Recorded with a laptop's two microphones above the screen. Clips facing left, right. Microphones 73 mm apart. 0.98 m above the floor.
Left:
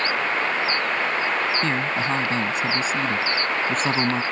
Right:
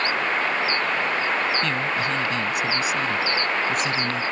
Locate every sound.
1.6 s a man speaking: 25° left (ahead or behind); by 4.2 s 40° left (ahead or behind)